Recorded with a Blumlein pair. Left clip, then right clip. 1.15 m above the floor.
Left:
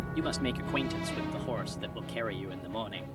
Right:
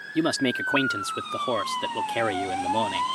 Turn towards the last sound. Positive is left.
turn(degrees=-25)